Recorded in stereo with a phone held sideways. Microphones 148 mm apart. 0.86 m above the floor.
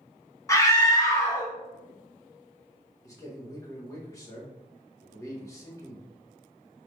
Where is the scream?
20° left (ahead or behind), 0.9 m.